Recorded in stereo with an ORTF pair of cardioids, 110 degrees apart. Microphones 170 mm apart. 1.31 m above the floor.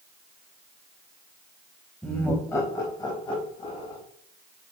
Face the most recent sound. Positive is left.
turn(degrees=30)